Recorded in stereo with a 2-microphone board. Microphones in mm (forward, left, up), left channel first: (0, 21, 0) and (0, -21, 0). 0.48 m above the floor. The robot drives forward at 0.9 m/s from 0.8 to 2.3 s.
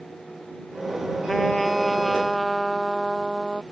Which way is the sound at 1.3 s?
5° left (ahead or behind).